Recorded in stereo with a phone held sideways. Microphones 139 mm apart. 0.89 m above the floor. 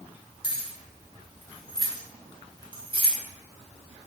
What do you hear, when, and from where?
0.4 s keys jangling: 35° left (ahead or behind), 1.2 m; by 3.1 s 45° right (ahead or behind), 0.9 m